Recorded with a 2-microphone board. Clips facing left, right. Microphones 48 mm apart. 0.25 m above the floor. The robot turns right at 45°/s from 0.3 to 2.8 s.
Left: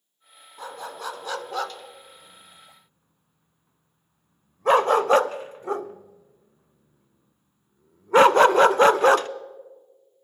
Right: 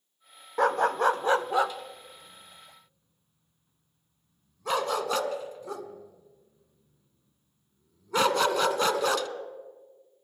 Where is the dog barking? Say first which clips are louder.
Right 12 dB; 60° right (ahead or behind), 0.6 m; by 9.3 s 35° left (ahead or behind), 0.6 m.